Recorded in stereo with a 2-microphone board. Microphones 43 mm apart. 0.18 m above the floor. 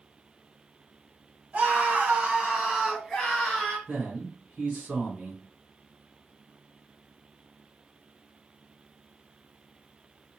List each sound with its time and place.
1.5 s a scream: 40° right (ahead or behind), 1.3 m; by 3.8 s 15° left (ahead or behind), 1.3 m
3.9 s a man speaking: 25° right (ahead or behind), 1.6 m